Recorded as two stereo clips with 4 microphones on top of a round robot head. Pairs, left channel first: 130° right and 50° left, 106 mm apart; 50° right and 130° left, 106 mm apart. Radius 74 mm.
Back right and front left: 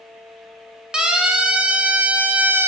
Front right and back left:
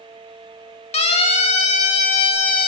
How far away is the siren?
About 4.5 m.